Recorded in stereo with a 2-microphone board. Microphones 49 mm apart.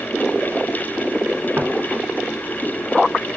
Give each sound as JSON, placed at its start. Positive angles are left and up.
{"t": 1.6, "sound": "footsteps", "side_deg": -50, "distance_m": 0.9}